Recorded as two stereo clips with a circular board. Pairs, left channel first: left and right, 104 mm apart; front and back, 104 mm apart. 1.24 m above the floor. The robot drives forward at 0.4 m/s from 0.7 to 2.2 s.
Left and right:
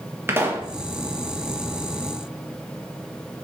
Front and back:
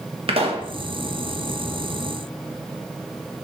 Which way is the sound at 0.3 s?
160° right.